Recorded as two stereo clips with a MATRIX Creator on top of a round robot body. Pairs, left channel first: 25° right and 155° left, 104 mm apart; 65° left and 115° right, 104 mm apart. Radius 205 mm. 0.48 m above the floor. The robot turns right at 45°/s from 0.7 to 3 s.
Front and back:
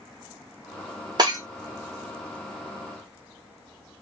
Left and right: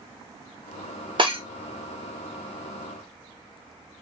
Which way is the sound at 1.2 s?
150° right.